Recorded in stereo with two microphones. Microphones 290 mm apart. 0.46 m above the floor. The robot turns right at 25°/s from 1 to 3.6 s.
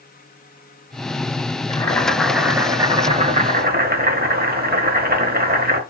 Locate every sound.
1.7 s boiling: 165° left, 0.6 m; by 5.8 s 145° right, 0.6 m